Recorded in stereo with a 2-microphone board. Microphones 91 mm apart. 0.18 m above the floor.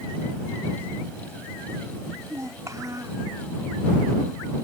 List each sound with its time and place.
2.1 s a child speaking: 35° right (ahead or behind)